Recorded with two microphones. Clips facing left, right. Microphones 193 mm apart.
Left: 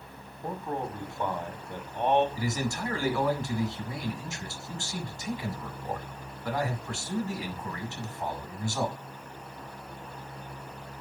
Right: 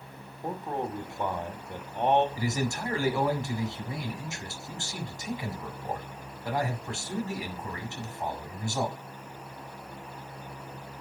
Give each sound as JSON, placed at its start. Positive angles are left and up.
{"t": 0.4, "sound": "a man speaking", "side_deg": -20, "distance_m": 1.0}
{"t": 2.4, "sound": "a man speaking", "side_deg": -20, "distance_m": 1.4}